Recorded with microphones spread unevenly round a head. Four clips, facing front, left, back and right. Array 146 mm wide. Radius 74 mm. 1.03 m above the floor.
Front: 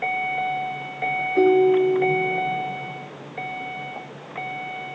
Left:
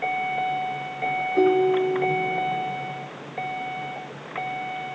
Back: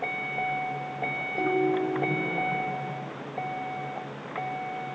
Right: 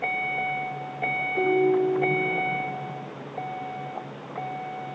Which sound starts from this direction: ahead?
A ringtone, at 1.4 s.